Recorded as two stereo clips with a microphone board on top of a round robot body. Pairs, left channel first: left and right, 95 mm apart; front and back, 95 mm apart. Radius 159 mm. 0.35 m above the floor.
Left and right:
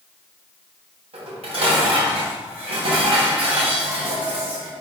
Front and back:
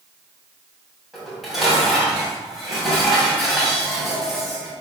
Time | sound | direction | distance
1.1 | dishes clattering | 90° right | 2.5 m